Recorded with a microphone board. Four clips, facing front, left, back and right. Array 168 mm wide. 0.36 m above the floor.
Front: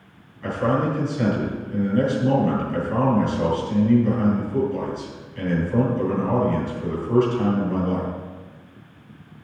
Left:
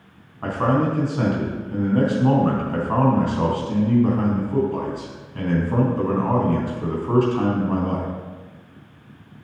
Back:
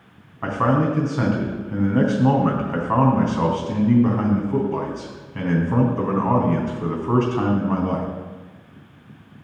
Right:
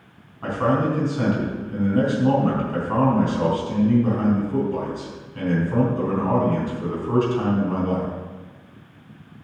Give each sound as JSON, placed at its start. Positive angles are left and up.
{"t": 0.4, "sound": "a man speaking", "azimuth_deg": 160, "distance_m": 3.5}